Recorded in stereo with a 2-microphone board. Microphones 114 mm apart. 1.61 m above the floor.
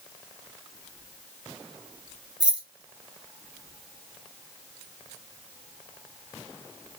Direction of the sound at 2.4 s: 10° right (ahead or behind).